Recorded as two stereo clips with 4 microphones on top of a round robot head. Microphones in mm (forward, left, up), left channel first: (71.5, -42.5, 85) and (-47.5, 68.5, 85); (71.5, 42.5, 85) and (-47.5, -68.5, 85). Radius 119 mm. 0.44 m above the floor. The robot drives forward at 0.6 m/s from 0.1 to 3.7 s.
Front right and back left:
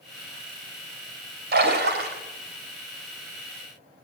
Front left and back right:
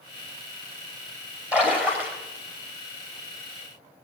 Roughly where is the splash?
Behind left.